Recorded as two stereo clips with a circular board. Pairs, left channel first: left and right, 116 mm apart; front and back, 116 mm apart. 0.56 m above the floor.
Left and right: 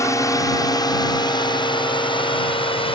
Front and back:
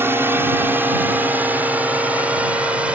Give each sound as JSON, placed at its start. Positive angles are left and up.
{"t": 0.0, "sound": "a drone", "azimuth_deg": 125}